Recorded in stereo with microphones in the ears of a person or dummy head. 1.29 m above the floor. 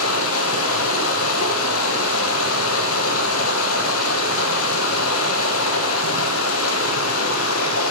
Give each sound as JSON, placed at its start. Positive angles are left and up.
{"t": 0.0, "sound": "running water", "side_deg": 85, "distance_m": 0.9}